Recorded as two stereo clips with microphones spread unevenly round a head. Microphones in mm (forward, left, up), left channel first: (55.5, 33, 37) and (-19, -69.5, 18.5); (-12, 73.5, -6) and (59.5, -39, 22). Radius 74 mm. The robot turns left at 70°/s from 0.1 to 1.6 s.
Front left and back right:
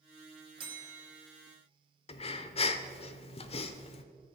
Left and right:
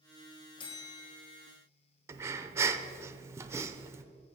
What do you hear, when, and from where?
0.6 s a bell: 175° right, 1.1 m; by 1.4 s 125° left, 1.1 m
2.1 s breathing: 20° left, 0.5 m